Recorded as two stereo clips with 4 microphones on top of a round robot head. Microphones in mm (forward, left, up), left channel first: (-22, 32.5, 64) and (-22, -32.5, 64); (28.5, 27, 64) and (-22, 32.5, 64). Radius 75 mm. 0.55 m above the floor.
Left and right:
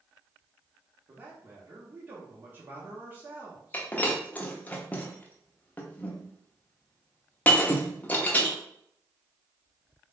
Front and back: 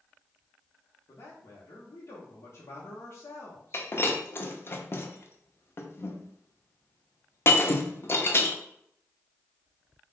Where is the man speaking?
30° right, 1.0 m.